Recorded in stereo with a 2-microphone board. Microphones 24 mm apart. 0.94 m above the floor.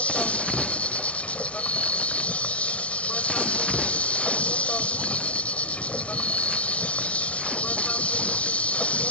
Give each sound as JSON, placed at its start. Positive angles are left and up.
{"t": 0.0, "sound": "an insect", "side_deg": 70}